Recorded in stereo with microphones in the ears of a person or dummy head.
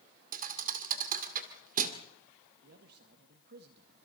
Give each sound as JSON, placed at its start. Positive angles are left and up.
{"t": 0.3, "sound": "a thud", "side_deg": -50, "distance_m": 2.0}
{"t": 2.6, "sound": "a man speaking", "side_deg": -60, "distance_m": 1.8}